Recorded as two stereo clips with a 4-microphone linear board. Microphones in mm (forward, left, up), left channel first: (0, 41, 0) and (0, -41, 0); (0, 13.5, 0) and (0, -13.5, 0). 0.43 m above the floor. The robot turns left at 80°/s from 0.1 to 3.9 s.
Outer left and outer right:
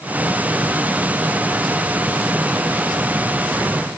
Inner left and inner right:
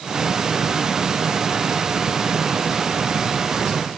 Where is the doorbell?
No doorbell in this recording.